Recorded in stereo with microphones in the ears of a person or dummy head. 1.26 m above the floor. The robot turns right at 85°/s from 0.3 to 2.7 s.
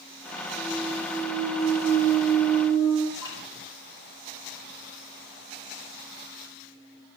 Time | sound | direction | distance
0.6 | a clunk | 140° right | 3.5 m
3.2 | dripping | 25° left (ahead or behind) | 2.5 m